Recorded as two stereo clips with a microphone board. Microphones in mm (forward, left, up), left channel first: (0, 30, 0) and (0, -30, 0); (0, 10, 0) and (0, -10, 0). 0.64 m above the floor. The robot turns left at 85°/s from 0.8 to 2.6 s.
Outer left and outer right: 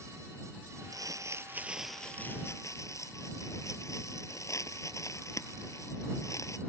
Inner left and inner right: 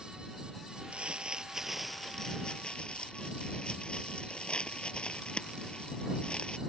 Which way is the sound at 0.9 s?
85° right.